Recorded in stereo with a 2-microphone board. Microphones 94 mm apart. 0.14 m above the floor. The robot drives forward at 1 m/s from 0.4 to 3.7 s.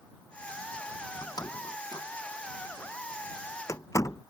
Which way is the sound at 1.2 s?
50° left (ahead or behind).